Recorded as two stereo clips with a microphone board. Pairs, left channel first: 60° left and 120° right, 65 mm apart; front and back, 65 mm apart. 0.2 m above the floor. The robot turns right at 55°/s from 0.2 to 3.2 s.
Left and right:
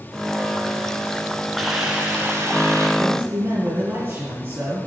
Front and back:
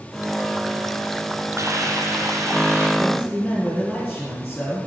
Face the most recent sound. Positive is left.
turn(degrees=-90)